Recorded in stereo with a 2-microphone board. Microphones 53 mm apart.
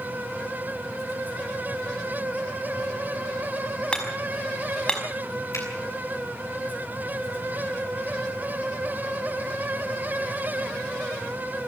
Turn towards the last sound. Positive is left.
turn(degrees=75)  # may be behind; listen again after turning